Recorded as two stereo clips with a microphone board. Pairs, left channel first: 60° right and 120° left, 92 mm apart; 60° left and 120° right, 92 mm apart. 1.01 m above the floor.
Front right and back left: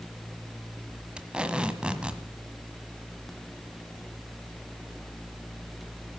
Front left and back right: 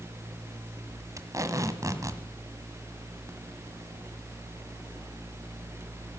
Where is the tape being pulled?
160° right, 1.3 m.